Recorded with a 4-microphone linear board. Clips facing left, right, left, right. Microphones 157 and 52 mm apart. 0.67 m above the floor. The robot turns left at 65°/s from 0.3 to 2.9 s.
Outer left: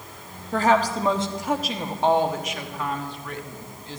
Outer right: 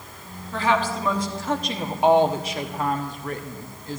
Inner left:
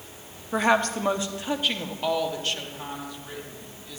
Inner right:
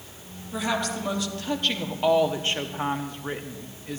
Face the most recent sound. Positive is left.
turn(degrees=-75)